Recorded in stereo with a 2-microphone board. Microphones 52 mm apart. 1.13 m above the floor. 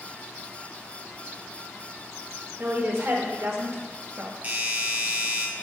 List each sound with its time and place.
2.6 s a woman speaking: 55° right (ahead or behind), 2 m; by 4.3 s 50° right (ahead or behind), 1.0 m
4.4 s a doorbell: 35° right (ahead or behind), 1.3 m